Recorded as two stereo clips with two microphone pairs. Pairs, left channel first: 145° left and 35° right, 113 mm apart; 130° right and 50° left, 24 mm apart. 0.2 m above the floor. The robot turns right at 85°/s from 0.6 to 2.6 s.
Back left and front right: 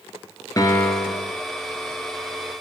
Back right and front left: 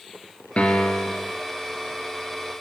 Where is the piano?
160° right, 1.9 m; by 1.3 s 95° right, 1.9 m.